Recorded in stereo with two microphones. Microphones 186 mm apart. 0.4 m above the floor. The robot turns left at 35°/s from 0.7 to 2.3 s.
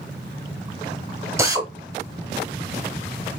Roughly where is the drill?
Centre.